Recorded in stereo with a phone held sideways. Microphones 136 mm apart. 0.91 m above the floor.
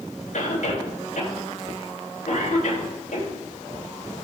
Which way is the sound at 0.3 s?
65° left (ahead or behind).